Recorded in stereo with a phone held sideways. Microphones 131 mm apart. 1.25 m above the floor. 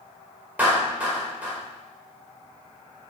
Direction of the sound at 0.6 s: 10° right (ahead or behind).